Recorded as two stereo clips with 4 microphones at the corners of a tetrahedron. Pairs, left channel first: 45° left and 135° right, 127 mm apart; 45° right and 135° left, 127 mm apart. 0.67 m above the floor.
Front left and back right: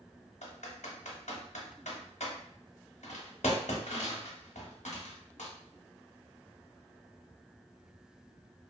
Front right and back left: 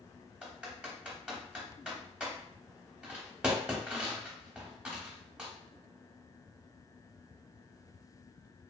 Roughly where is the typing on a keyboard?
Ahead left.